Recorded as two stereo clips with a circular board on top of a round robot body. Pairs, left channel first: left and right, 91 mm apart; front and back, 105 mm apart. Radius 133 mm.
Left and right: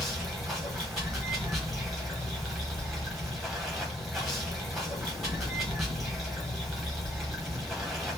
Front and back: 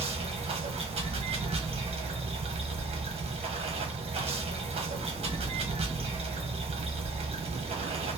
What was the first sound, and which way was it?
Running water, straight behind.